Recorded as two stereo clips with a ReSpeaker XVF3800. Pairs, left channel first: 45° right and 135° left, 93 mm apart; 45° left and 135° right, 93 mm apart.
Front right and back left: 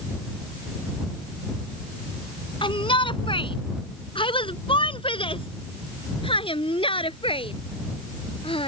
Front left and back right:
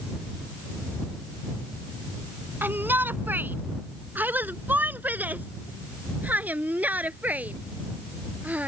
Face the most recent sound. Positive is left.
turn(degrees=-60)